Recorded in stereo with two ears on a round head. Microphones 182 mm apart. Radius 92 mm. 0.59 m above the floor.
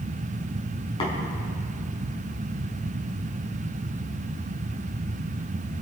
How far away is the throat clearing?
No throat clearing in this recording.